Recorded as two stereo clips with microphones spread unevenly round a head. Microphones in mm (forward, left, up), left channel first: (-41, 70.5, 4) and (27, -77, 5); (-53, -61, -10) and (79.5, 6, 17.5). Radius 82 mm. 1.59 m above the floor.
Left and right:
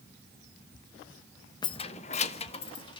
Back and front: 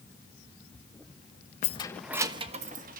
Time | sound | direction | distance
1.6 | keys jangling | 170° left | 0.9 m